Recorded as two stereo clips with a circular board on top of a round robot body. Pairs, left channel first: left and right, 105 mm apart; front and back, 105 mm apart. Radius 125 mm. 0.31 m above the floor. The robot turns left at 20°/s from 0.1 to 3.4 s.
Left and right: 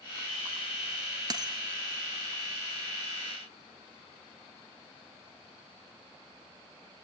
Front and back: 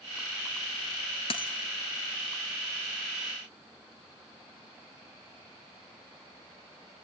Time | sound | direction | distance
1.3 | a dropped coin | 35° right | 1.4 m